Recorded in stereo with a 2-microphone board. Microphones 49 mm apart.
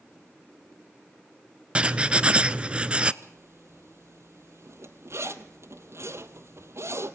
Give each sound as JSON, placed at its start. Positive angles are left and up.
{"t": 1.8, "sound": "writing", "side_deg": -25, "distance_m": 0.5}
{"t": 3.2, "sound": "a zipper", "side_deg": -70, "distance_m": 1.1}